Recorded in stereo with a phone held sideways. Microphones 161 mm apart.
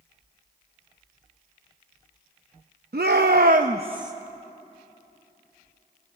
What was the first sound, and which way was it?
A shout, 80° right.